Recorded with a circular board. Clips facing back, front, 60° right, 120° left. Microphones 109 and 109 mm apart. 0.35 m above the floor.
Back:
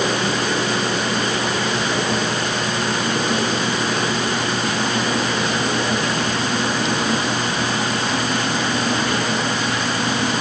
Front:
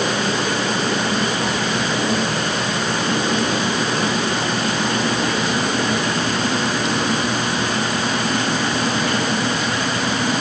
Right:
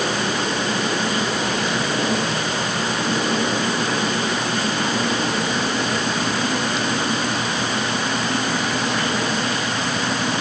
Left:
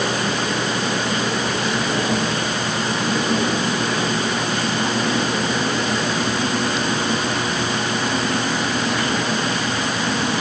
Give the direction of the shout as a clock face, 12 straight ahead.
I don't hear a shout.